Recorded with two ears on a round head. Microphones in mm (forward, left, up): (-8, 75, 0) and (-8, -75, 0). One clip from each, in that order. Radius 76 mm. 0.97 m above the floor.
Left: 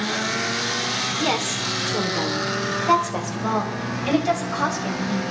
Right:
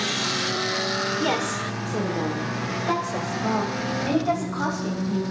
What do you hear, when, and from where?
1.2 s a woman speaking: 20° left (ahead or behind), 3 m; by 5.2 s 55° left (ahead or behind), 5.5 m